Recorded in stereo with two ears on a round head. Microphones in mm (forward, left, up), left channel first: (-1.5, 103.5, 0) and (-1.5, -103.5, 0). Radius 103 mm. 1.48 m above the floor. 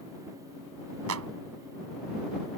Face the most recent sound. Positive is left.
turn(degrees=-70)  # may be behind; listen again after turning